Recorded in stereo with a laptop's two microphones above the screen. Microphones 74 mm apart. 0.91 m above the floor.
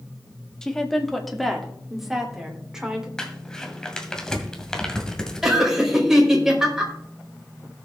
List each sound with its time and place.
0.6 s a woman speaking: 5° left (ahead or behind), 1.9 m; by 3.1 s 10° right (ahead or behind), 4 m
3.2 s crumpling: 10° left (ahead or behind), 2 m
5.4 s laughter: 10° right (ahead or behind), 4.5 m